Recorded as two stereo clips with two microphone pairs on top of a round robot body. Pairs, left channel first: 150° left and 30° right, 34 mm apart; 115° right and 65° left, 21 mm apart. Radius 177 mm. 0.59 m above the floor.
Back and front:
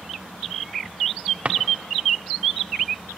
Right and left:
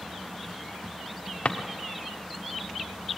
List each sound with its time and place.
1.4 s a drawer: 80° right, 0.9 m